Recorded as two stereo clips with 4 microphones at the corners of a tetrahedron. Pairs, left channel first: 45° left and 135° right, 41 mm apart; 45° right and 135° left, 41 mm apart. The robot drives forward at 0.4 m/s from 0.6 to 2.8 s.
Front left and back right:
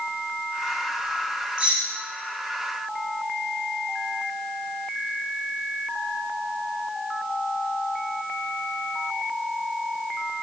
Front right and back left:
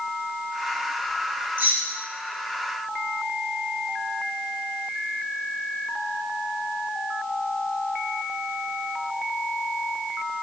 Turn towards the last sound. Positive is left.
turn(degrees=170)